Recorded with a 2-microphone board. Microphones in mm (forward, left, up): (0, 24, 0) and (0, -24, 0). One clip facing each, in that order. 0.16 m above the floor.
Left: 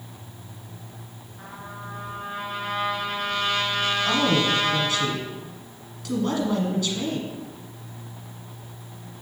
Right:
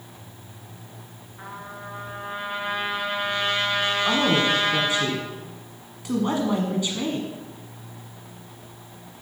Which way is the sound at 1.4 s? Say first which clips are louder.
Right 2 dB; 25° right (ahead or behind).